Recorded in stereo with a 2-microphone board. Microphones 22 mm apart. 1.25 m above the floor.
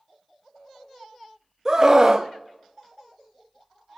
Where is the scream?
25° right (ahead or behind), 0.7 m.